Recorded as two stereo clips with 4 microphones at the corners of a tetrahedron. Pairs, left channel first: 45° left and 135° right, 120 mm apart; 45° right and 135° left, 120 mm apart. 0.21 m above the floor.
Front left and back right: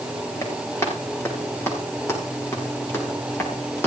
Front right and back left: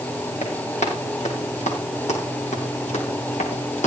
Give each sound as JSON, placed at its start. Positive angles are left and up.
{"t": 0.4, "sound": "running footsteps", "azimuth_deg": -20, "distance_m": 8.5}